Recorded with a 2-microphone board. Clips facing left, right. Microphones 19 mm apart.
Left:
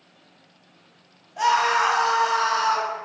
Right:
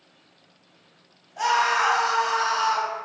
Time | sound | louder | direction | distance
1.4 | a scream | left 2 dB | 15° left (ahead or behind) | 0.6 m